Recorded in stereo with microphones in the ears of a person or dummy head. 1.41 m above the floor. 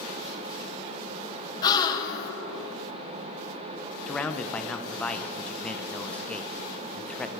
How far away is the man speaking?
About 0.7 m.